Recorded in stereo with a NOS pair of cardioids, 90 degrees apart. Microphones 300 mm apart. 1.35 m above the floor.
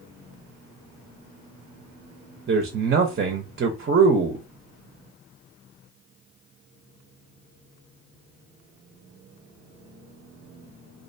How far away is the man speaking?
About 0.6 m.